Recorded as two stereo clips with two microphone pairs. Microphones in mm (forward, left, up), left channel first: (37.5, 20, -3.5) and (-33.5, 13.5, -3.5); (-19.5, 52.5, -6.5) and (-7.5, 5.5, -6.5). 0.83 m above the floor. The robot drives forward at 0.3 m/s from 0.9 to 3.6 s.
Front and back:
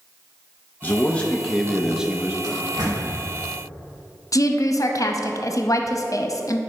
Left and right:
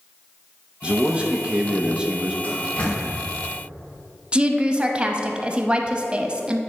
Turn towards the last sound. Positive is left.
turn(degrees=-10)